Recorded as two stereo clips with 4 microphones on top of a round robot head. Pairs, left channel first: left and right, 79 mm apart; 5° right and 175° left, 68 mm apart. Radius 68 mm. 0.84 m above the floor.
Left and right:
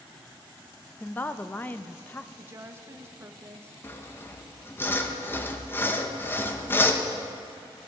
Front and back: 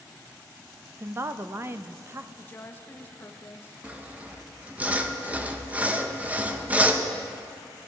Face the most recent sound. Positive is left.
turn(degrees=125)